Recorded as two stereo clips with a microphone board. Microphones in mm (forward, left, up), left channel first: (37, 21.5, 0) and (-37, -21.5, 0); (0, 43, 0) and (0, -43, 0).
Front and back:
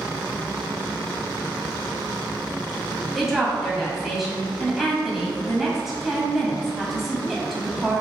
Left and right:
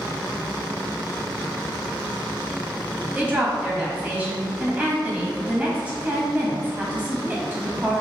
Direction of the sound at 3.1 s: 65° right.